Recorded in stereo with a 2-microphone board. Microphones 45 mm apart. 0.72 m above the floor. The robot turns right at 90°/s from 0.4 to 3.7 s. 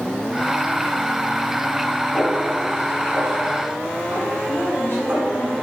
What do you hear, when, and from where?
2.1 s a snare drum: 15° left (ahead or behind), 3.5 m; by 5.3 s 55° right (ahead or behind), 3.5 m
4.5 s a woman speaking: 60° left (ahead or behind), 3.5 m